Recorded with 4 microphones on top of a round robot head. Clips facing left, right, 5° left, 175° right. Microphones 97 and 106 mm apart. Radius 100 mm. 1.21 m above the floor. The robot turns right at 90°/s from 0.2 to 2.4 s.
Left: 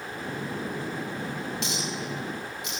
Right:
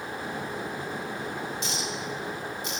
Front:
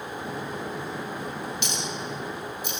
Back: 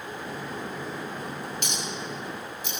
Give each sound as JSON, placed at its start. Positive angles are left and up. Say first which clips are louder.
{"t": 1.6, "sound": "a clink", "louder": "left 1 dB, front 2 dB", "azimuth_deg": 135, "distance_m": 6.5}